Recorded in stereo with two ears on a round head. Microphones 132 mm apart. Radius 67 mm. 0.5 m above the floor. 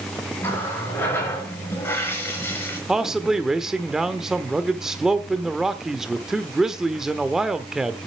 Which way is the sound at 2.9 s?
5° right (ahead or behind).